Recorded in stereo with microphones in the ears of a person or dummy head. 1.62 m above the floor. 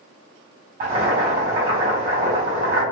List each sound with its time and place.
0.8 s boiling: 35° right (ahead or behind), 1.6 m